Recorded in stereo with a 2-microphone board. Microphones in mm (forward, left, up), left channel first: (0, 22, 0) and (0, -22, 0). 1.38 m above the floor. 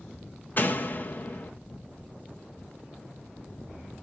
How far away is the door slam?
About 0.7 m.